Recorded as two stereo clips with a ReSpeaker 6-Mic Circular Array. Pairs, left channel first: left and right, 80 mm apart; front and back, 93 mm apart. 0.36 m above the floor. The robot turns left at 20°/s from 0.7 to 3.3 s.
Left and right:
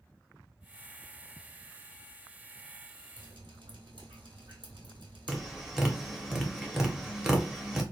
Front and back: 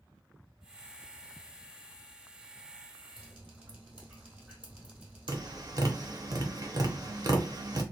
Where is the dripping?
100° right, 1.5 m.